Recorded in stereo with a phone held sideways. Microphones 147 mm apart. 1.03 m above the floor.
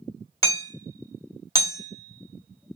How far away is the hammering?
About 1.7 m.